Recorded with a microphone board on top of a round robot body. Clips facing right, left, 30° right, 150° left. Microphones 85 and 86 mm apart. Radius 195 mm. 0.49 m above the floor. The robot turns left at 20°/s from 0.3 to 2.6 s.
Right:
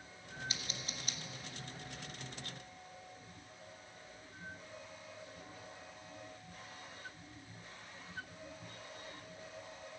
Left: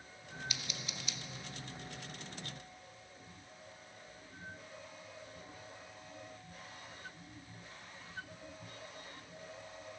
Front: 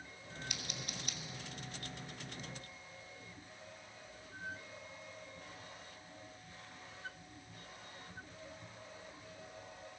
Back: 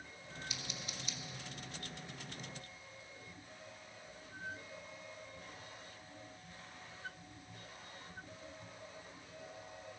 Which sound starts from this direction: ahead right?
Scissors, at 0.5 s.